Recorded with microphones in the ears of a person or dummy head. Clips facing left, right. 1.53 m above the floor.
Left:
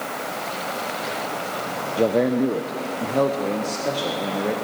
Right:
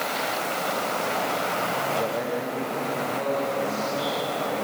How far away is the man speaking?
About 0.7 m.